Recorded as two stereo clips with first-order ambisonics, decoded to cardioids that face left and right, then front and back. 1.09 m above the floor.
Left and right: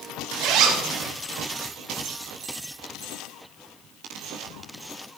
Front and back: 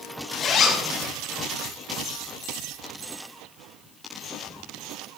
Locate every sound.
0.4 s a zipper: 60° right, 1.6 m